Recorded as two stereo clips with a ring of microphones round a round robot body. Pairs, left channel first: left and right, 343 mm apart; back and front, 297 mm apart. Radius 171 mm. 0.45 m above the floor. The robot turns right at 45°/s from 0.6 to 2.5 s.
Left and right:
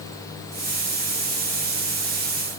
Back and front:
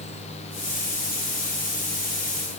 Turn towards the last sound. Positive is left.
No sound to turn to.